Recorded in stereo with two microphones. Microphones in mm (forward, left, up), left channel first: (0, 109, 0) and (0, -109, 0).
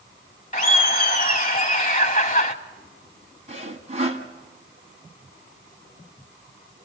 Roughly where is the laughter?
Left.